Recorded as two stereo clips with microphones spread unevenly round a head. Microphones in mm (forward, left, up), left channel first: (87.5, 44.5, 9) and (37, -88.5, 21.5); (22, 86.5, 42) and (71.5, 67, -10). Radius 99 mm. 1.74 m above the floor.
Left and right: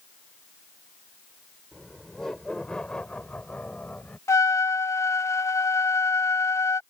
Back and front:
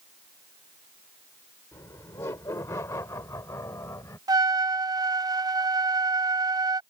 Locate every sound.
1.7 s laughter: 160° left; by 4.2 s 155° left
4.3 s a trumpet: straight ahead